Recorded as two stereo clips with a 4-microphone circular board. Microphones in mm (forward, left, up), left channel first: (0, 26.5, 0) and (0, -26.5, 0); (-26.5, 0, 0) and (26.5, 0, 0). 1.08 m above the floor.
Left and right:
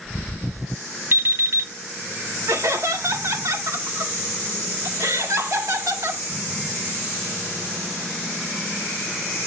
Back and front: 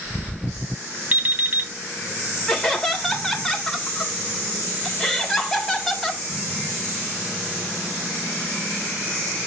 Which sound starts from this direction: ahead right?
An alarm clock, at 1.1 s.